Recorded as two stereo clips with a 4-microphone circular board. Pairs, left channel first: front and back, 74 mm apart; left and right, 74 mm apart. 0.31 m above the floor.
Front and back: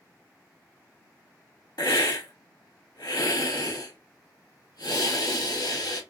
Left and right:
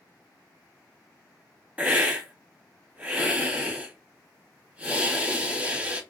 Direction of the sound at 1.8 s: 15° right.